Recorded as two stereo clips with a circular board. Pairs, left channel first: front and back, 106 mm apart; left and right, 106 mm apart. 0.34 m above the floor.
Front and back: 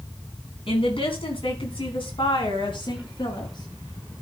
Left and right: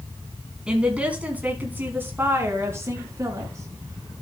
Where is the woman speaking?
10° right, 3.5 m; by 4.1 s 40° right, 4.5 m.